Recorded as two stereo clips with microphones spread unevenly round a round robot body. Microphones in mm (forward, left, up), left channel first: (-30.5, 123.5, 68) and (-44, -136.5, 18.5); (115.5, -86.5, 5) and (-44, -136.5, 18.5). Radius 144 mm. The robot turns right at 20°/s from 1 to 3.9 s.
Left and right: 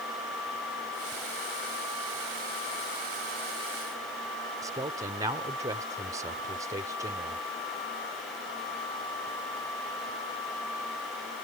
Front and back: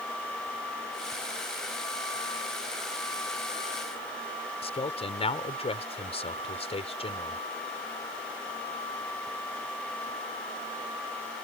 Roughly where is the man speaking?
Ahead right.